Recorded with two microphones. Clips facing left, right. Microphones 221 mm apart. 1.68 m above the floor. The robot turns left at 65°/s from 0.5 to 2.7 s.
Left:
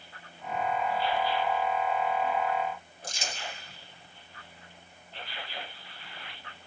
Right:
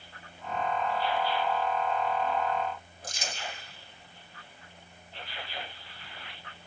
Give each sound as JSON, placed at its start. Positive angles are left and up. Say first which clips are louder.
{"t": 3.0, "sound": "crumpling", "louder": "even", "side_deg": 30, "distance_m": 1.6}